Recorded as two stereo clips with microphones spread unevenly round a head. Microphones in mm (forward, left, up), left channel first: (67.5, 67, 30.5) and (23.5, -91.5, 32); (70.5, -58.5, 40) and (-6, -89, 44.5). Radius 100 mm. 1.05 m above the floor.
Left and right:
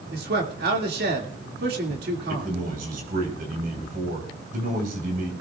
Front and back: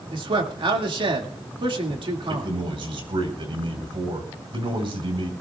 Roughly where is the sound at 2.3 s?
Behind right.